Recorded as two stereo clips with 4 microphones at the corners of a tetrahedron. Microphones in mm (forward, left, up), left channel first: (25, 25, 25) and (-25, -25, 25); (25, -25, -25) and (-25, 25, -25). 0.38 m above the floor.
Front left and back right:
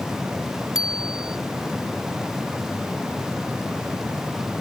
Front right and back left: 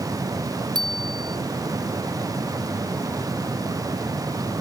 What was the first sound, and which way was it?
A bicycle bell, 145° left.